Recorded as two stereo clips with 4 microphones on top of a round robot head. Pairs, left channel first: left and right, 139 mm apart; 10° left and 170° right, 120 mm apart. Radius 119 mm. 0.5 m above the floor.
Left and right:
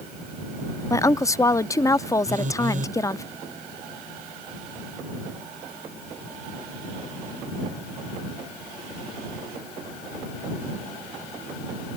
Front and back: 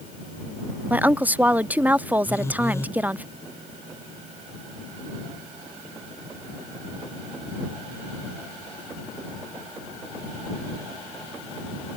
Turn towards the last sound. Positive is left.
turn(degrees=-65)